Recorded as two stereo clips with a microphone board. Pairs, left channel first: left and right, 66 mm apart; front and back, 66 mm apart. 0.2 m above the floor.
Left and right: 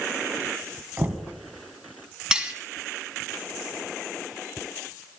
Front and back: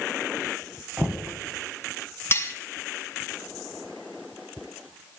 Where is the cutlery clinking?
20° right, 1.1 m.